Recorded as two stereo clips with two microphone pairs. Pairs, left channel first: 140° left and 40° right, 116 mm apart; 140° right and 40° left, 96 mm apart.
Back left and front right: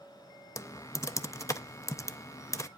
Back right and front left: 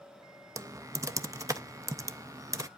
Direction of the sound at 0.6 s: 85° left.